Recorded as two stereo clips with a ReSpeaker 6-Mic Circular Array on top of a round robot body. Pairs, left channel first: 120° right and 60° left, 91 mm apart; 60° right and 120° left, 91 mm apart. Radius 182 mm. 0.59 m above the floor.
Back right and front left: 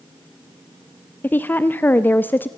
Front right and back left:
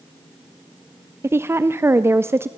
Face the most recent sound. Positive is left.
turn(degrees=175)